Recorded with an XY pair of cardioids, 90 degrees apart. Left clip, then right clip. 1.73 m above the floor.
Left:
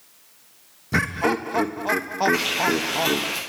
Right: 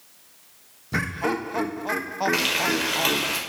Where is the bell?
I don't hear a bell.